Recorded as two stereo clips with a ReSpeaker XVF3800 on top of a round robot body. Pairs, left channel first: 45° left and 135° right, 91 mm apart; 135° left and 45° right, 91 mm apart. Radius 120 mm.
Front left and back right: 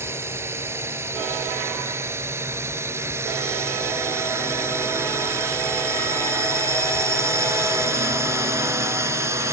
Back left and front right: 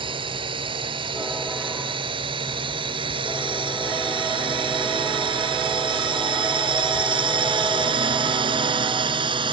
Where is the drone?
70° right; by 9.5 s 75° right.